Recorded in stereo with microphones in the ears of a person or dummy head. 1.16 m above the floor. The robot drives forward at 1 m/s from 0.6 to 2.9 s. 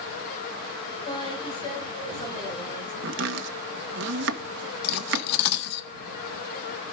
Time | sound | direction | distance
1.1 | a woman speaking | 25° left (ahead or behind) | 6.5 m
3.0 | chopping | 65° right (ahead or behind) | 1.4 m
4.8 | cutlery clinking | 65° left (ahead or behind) | 0.6 m